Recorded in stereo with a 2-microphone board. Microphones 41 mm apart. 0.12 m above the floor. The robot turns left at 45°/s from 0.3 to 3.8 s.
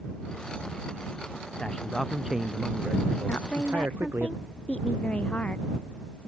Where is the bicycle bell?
No bicycle bell in this recording.